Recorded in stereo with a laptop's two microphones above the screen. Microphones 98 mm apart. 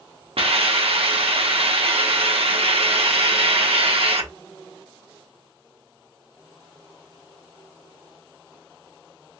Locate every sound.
0.4 s a hiss: 70° right (ahead or behind), 0.6 m